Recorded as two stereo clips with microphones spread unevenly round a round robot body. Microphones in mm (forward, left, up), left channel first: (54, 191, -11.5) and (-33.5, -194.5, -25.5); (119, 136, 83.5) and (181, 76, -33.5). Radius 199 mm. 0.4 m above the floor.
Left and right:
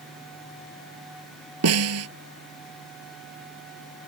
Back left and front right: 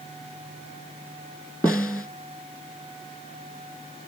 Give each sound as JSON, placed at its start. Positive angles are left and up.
{"t": 1.6, "sound": "a snare drum", "azimuth_deg": -160}